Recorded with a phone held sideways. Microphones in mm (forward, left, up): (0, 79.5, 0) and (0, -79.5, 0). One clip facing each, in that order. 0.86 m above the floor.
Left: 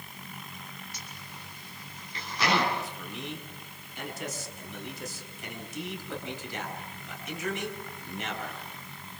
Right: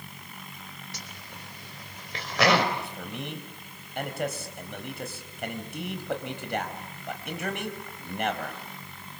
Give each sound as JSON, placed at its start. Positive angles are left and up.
{"t": 0.9, "sound": "a zipper", "side_deg": -80, "distance_m": 3.5}
{"t": 2.7, "sound": "a man speaking", "side_deg": -60, "distance_m": 4.5}